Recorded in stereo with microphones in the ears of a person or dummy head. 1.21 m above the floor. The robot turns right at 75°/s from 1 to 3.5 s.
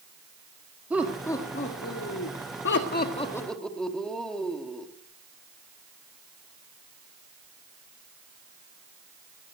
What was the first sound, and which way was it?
Laughter, 10° right.